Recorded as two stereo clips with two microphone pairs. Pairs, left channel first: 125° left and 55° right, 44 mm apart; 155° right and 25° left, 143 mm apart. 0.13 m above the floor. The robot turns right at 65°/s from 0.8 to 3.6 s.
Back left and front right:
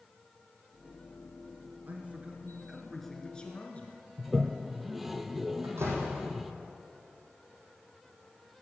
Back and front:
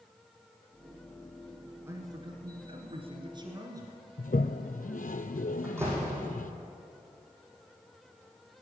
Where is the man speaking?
35° right, 2 m; by 4.0 s 80° left, 2 m.